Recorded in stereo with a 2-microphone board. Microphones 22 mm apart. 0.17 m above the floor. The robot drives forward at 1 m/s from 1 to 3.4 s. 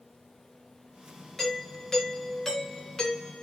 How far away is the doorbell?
About 3.5 m.